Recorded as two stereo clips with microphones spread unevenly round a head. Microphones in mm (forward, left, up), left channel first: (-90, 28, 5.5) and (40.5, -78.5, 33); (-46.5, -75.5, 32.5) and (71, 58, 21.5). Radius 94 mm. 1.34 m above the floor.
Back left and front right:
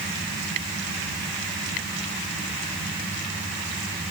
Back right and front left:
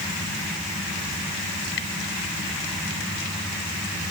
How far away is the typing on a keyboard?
I don't hear typing on a keyboard.